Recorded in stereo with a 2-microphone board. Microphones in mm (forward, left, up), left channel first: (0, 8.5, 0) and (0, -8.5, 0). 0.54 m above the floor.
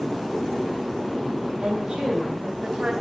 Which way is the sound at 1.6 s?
70° right (ahead or behind).